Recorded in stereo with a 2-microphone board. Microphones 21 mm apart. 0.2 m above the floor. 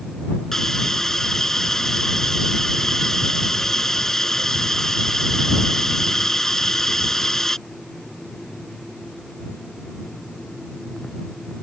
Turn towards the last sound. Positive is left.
turn(degrees=20)  # may be behind; listen again after turning